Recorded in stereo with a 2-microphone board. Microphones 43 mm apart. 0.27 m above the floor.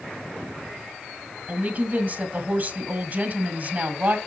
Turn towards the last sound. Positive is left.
turn(degrees=-45)  # may be behind; listen again after turning